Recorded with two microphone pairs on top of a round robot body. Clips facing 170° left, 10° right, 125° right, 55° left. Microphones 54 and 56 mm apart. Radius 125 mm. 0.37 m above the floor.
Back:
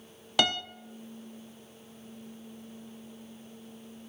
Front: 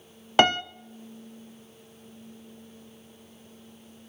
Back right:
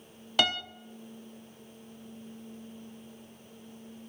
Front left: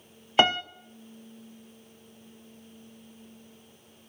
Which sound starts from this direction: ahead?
A piano, at 0.4 s.